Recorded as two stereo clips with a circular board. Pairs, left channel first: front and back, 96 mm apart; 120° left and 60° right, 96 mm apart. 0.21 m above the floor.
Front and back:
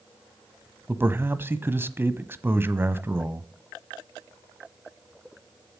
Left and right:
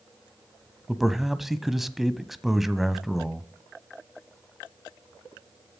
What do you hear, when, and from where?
0.9 s a man speaking: 145° right, 1.1 m